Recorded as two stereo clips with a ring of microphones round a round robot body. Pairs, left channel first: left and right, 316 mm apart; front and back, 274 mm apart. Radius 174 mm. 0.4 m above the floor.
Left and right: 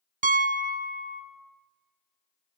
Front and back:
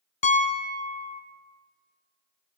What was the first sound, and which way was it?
A piano, 45° right.